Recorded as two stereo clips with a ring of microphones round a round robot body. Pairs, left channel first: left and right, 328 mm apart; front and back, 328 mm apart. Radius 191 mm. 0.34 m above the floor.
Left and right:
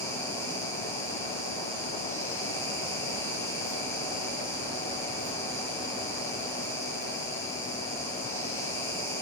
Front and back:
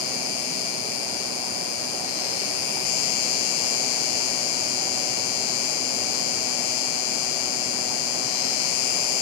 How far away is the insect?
About 0.7 m.